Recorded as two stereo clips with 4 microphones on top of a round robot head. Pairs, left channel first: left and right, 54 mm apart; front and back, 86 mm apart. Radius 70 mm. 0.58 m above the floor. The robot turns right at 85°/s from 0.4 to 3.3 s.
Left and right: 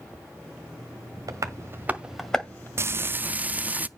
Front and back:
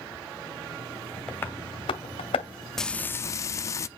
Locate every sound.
1.3 s tapping: 80° right, 1.7 m; by 2.7 s 35° left, 1.7 m
2.8 s frying: 85° right, 0.5 m; by 3.9 s 40° right, 0.5 m